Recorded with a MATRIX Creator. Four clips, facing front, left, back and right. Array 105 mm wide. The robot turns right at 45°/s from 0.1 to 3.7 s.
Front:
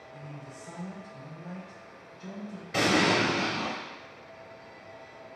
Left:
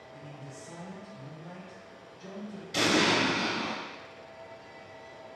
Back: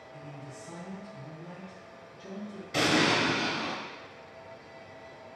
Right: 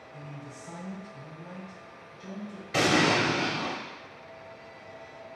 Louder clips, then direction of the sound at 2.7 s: Right 2 dB, front 1 dB; 70° right.